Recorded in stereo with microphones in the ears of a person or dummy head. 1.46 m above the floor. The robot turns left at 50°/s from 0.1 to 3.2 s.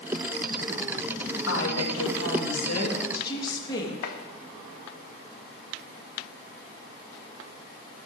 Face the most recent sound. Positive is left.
turn(degrees=65)  # may be behind; listen again after turning